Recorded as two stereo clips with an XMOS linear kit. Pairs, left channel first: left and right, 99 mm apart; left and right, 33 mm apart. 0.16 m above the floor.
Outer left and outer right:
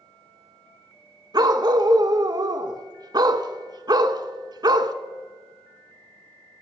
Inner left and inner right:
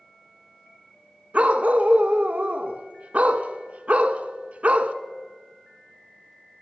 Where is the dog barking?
45° right (ahead or behind), 0.5 m.